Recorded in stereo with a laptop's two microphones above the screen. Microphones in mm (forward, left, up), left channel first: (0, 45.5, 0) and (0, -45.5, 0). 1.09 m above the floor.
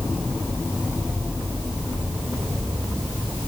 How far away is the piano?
No piano in this recording.